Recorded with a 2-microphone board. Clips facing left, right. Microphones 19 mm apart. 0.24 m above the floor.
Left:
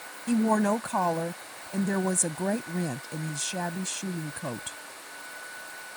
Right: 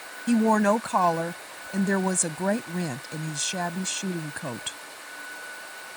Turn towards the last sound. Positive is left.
turn(degrees=-30)  # may be behind; listen again after turning